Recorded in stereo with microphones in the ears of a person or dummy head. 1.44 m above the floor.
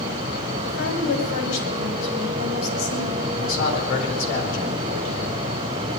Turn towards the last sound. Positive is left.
turn(degrees=65)  # may be behind; listen again after turning